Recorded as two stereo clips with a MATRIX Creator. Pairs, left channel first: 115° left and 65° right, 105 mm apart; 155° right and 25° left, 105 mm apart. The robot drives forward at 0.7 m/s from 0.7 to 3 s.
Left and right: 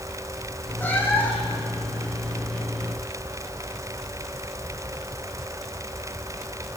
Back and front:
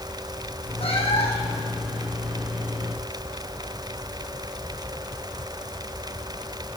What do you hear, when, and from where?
0.8 s a cat meowing: 175° right, 2.5 m